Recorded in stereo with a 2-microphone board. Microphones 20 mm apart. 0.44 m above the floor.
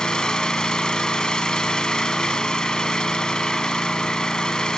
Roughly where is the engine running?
Left.